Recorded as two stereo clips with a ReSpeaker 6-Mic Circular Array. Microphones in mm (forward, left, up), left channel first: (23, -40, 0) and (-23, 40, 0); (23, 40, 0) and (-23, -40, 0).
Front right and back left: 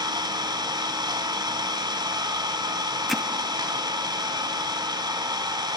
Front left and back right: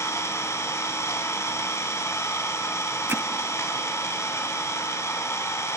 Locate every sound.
0.0 s an engine running: 110° left, 1.2 m
3.1 s hammering: 145° right, 0.5 m